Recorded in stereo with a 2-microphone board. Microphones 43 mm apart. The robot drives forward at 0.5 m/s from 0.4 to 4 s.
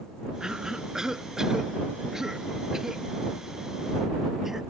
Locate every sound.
0.4 s a cough: 15° right (ahead or behind); by 4.6 s 10° right (ahead or behind)